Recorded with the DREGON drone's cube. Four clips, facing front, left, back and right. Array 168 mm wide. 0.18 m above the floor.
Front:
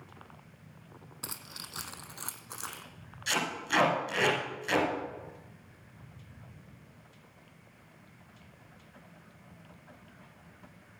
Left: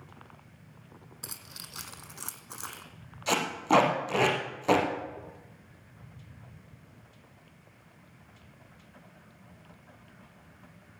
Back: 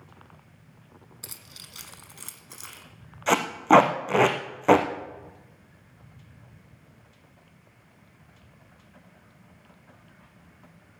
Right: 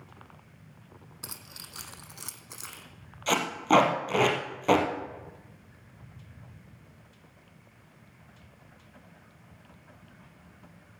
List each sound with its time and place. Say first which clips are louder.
1.2 s keys jangling: right 2 dB, front 4 dB; 15° right, 1.1 m; by 2.8 s 50° left, 1.2 m
3.3 s tape being pulled: right 2 dB, back 14 dB; 175° right, 2.5 m